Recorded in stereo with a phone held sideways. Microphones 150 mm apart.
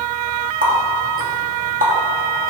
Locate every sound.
0.6 s a running tap: 70° right (ahead or behind), 1.6 m